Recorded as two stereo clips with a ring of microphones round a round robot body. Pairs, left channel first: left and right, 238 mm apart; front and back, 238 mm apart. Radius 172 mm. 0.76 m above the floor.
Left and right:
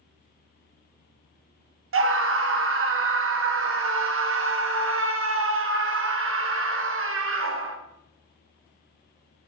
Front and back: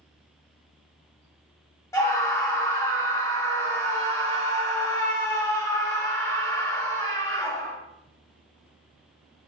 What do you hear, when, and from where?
1.9 s a scream: 80° right, 0.9 m